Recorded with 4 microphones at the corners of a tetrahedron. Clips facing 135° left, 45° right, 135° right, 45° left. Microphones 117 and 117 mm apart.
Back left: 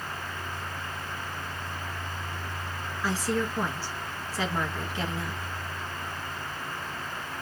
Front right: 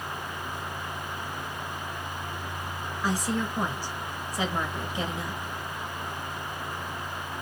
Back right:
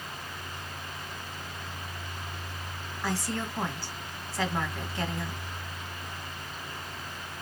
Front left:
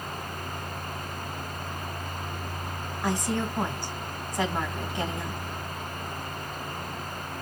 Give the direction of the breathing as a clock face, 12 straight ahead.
I don't hear breathing.